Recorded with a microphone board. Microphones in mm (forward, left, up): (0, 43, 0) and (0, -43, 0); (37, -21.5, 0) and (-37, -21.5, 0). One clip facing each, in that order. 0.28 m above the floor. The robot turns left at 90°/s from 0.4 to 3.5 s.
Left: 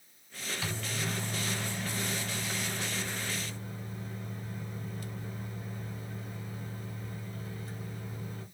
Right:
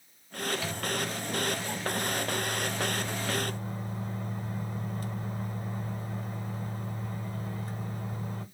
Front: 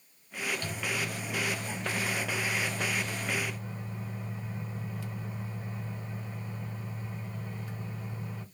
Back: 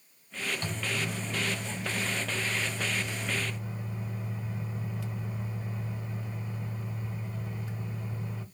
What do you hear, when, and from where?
0.6 s a microwave: 170° left, 0.9 m; by 8.4 s 90° right, 0.9 m